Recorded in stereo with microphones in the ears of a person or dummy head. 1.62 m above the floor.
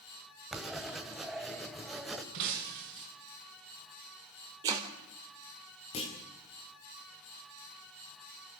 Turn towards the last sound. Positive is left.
turn(degrees=25)  # may be behind; listen again after turning